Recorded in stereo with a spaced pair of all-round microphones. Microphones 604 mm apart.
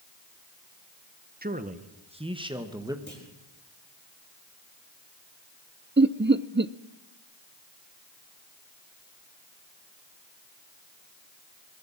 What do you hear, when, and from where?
1.4 s a man speaking: 15° right (ahead or behind), 1.0 m; by 3.0 s 5° right (ahead or behind), 1.8 m
3.1 s a clunk: 15° left (ahead or behind), 6 m
6.0 s laughter: 20° right (ahead or behind), 0.6 m